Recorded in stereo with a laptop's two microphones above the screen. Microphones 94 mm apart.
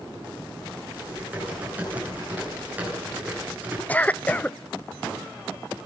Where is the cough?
15° left (ahead or behind), 0.5 m.